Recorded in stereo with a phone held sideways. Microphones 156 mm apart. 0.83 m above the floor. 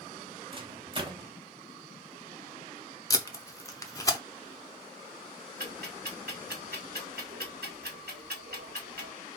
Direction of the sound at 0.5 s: 35° right (ahead or behind).